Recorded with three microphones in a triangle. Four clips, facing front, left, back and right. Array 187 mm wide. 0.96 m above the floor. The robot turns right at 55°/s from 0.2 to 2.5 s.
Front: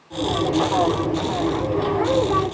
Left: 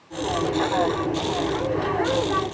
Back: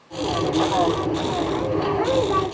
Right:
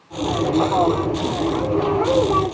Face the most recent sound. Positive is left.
No sound to turn to.